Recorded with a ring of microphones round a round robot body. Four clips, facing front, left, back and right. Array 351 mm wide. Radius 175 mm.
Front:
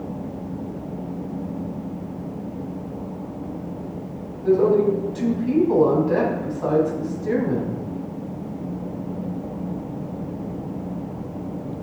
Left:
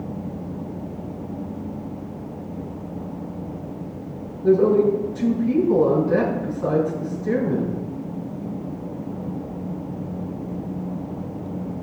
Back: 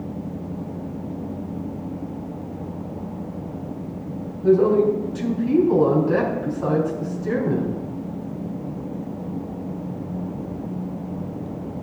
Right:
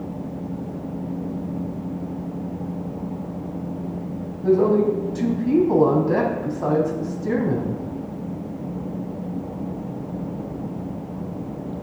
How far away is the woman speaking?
About 3.5 m.